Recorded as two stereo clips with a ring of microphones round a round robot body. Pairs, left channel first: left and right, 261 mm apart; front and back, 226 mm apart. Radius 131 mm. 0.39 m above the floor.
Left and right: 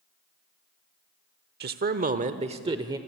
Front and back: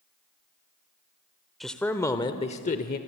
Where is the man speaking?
90° right, 1.0 m; by 3.0 s 20° right, 1.0 m.